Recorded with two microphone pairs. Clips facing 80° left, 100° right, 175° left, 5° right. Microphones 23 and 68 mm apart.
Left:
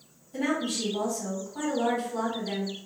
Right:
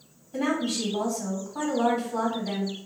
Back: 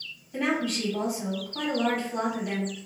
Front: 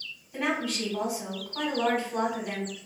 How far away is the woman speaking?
About 1.6 m.